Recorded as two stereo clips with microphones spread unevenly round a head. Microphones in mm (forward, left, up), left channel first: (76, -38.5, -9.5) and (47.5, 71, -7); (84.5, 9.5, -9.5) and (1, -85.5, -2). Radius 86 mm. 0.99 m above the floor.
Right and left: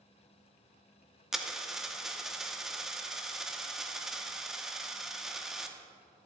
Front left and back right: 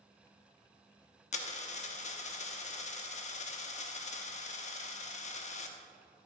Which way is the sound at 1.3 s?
20° left.